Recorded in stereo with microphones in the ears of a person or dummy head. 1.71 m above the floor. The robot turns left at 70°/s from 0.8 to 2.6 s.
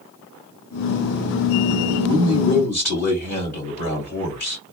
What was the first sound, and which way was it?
A man speaking, 170° left.